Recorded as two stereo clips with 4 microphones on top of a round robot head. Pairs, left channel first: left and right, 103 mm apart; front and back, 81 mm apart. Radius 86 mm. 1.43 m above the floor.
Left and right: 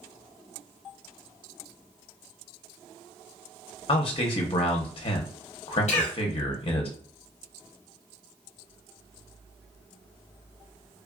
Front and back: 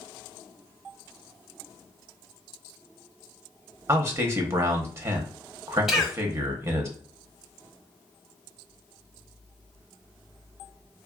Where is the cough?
100° left, 0.8 m.